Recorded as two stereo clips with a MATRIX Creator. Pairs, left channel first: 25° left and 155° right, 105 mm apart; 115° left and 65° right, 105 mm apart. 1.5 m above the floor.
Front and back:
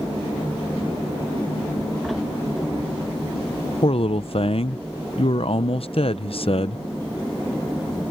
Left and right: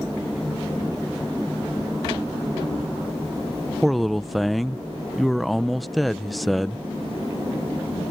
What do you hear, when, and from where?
3.8 s a man speaking: 25° left